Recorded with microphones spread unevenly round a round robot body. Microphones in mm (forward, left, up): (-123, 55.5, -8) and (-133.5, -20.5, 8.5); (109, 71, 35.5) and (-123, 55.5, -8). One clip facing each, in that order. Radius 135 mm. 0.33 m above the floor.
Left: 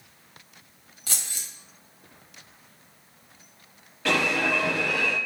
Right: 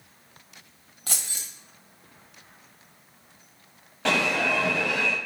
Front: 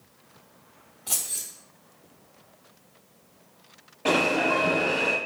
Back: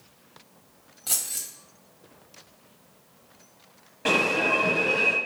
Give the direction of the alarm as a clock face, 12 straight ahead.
3 o'clock.